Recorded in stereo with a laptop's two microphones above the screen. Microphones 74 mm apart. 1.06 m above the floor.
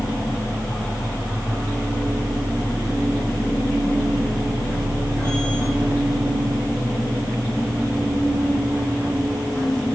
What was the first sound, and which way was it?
A machine running, 35° right (ahead or behind).